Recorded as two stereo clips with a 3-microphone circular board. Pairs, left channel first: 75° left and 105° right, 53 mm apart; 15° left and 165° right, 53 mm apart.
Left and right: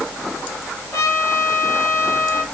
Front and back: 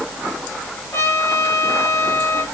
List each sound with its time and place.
0.9 s a trumpet: 45° left, 5 m